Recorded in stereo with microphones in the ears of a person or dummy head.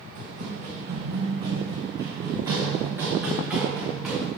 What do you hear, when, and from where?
0.1 s running footsteps: 40° right (ahead or behind), 4 m; by 4.3 s 5° right (ahead or behind), 7 m